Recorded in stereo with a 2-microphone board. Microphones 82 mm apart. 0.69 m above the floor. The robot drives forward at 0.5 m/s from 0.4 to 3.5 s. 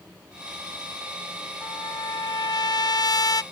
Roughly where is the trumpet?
Left.